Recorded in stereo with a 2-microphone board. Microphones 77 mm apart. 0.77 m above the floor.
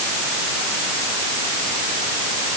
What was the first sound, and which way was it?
Only background noise.